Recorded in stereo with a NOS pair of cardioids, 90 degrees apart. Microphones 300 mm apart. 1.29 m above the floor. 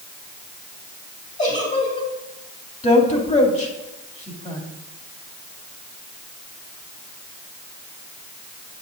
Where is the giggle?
25° left, 3 m.